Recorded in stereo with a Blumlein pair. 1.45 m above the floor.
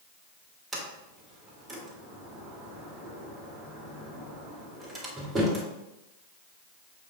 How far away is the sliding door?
About 2 m.